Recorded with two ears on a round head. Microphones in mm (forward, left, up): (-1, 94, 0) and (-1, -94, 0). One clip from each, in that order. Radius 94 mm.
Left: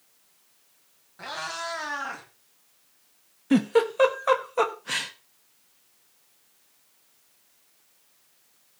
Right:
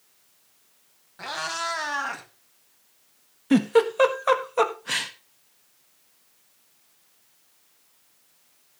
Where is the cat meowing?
15° right (ahead or behind), 2.5 m; by 2.2 s 30° right (ahead or behind), 3 m.